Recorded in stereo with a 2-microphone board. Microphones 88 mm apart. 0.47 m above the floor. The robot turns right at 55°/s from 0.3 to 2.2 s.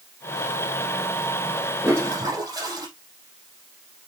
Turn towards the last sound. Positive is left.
turn(degrees=-45)  # may be behind; listen again after turning